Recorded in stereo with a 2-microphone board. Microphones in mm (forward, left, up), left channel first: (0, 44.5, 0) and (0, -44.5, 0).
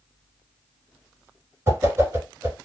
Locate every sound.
1.7 s a whoosh: 30° right (ahead or behind), 1.5 m